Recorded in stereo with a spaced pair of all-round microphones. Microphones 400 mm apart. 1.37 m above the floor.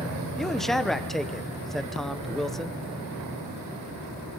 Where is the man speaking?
Centre (ahead or behind), 0.9 m.